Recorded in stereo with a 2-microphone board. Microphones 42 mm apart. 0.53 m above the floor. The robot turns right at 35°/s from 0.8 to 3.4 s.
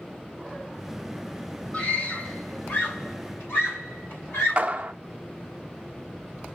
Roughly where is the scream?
Left.